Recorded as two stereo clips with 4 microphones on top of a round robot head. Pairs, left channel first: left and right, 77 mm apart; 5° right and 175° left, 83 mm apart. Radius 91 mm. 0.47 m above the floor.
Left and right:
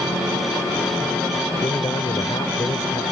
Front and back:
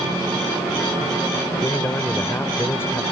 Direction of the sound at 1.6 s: 50° left.